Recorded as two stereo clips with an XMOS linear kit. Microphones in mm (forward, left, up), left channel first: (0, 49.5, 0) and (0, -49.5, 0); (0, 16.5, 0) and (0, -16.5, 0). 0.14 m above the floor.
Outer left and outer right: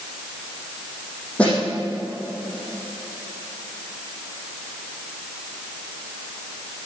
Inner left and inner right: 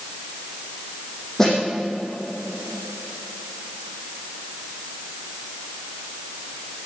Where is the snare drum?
15° left (ahead or behind), 7 m.